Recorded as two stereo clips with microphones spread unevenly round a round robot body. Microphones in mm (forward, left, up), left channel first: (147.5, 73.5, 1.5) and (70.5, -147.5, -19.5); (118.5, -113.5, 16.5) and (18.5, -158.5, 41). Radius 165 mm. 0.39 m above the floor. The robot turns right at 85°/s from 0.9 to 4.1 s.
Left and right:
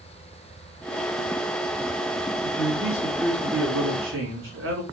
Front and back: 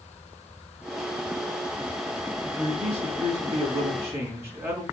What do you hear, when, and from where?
2.4 s a man speaking: 130° left, 2.5 m; by 4.8 s 90° right, 2.5 m